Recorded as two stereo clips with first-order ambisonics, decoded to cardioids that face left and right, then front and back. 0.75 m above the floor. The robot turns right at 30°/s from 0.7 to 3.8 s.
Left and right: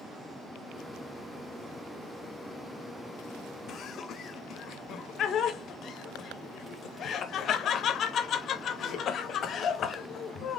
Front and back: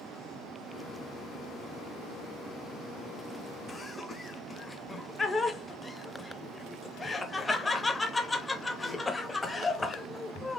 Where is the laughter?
70° left, 0.7 m; by 10.6 s 75° left, 0.7 m.